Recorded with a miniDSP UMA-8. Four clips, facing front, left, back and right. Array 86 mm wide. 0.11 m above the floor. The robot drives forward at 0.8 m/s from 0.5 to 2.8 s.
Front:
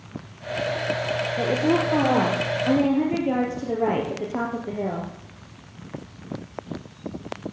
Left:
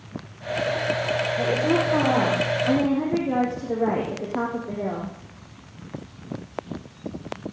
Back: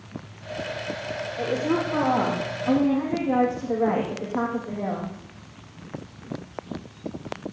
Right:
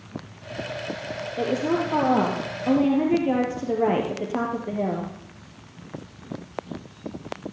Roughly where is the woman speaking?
Ahead right.